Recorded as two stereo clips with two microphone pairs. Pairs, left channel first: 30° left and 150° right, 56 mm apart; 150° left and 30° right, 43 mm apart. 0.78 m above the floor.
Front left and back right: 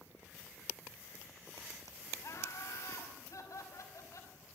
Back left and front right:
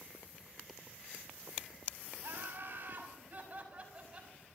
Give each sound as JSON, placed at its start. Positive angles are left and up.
{"t": 2.2, "sound": "laughter", "azimuth_deg": 5, "distance_m": 5.5}